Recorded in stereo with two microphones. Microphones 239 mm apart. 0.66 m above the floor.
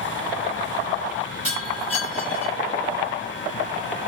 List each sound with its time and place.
1.4 s breaking glass: 70° right (ahead or behind), 8.5 m